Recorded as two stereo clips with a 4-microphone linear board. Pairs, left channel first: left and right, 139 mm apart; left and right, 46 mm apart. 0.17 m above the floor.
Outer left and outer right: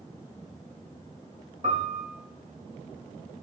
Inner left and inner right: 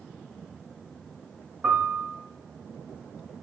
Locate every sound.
1.6 s a piano: 55° right (ahead or behind), 4.5 m